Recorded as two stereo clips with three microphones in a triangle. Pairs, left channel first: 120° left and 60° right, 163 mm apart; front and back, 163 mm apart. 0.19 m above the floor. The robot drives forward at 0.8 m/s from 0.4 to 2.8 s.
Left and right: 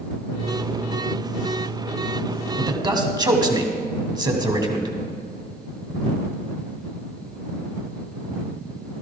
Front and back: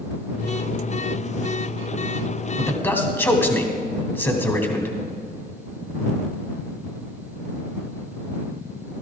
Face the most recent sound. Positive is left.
turn(degrees=-60)